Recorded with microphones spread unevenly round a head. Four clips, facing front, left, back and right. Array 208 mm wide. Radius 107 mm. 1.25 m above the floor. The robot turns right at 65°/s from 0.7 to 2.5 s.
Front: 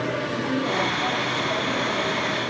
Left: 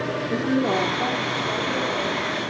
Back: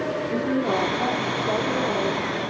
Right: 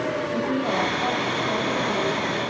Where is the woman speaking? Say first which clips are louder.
Left 5 dB, back 4 dB; 125° left, 4 m; by 2.4 s 125° right, 4 m.